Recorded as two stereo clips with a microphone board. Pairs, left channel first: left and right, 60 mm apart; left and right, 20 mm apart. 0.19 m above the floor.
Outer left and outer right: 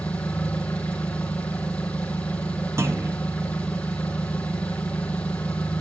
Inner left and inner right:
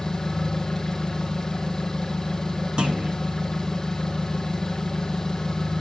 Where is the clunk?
50° right (ahead or behind), 2 m.